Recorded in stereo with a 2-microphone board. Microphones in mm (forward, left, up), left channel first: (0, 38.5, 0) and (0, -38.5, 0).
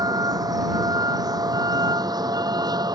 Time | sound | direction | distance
0.0 | a vehicle | 60° right (ahead or behind) | ?